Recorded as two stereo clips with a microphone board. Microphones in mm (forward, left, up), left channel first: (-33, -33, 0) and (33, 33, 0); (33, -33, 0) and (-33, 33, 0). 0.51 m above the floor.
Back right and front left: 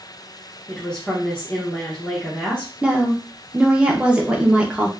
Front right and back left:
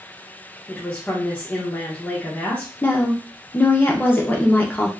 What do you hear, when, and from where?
0.7 s a woman speaking: 80° right, 1.0 m
2.8 s a woman speaking: 15° right, 0.7 m